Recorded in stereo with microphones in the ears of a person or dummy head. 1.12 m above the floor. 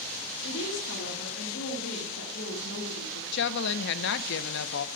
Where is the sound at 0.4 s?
65° left (ahead or behind), 1.8 m.